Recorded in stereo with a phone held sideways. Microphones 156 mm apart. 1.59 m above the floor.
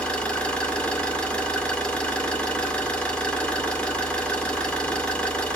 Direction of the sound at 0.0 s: 5° left (ahead or behind).